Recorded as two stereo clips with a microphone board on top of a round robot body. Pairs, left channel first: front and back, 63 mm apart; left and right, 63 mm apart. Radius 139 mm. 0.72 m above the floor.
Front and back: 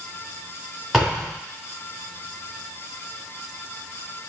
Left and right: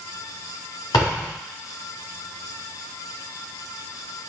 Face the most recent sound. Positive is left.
turn(degrees=95)